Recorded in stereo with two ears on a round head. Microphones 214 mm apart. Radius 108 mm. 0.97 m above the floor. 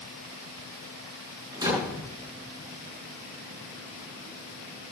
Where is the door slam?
20° right (ahead or behind), 8 m.